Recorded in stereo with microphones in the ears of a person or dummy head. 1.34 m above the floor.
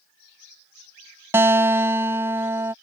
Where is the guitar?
15° right (ahead or behind).